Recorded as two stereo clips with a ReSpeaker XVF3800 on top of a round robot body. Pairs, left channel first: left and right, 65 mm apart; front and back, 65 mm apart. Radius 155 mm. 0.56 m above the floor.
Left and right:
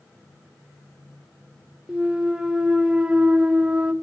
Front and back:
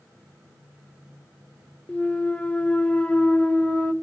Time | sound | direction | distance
1.9 | a clunk | 35° right | 1.3 m